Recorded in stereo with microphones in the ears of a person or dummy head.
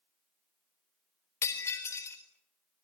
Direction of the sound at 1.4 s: 15° left (ahead or behind).